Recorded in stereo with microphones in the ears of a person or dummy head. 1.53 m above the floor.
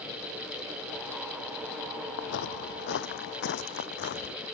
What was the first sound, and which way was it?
Footsteps, 60° left (ahead or behind).